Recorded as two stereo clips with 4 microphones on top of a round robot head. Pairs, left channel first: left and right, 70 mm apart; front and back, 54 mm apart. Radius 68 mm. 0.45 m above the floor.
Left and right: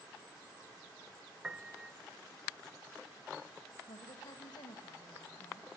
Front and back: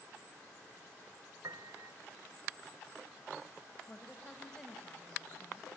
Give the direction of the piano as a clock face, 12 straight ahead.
5 o'clock.